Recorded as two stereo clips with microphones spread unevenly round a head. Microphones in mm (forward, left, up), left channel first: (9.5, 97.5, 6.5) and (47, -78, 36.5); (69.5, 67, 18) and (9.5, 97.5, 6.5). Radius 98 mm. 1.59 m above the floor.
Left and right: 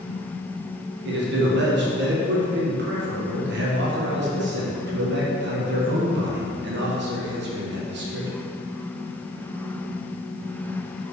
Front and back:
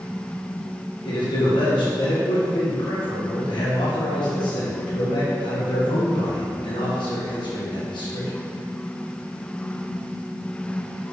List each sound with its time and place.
1.1 s a man speaking: 50° right, 1.8 m